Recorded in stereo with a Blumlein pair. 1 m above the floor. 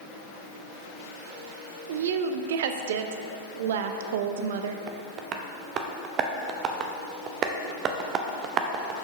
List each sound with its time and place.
1.9 s a woman speaking: 55° right, 0.5 m
4.9 s tapping: 30° right, 0.6 m